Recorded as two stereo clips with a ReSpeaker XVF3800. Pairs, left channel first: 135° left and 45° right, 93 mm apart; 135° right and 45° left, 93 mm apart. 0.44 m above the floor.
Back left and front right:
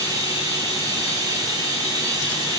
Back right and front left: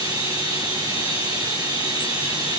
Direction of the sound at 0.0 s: 5° left.